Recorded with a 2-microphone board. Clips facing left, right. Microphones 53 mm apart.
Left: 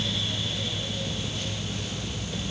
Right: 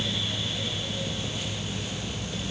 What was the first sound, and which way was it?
Only background noise.